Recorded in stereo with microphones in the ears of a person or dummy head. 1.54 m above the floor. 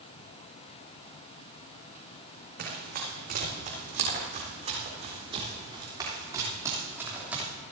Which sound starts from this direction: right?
Running footsteps, at 2.6 s.